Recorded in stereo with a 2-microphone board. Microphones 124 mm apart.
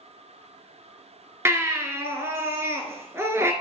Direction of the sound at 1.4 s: 20° right (ahead or behind).